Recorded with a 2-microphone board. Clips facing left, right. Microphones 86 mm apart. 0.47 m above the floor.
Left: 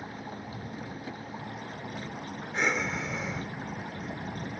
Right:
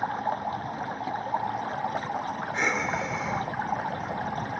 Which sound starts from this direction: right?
Running water, at 0.0 s.